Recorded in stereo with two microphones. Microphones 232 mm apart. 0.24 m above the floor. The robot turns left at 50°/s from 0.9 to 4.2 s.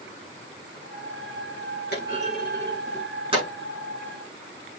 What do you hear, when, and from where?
1.9 s a clunk: 45° left (ahead or behind), 8 m; by 3.5 s 30° right (ahead or behind), 8 m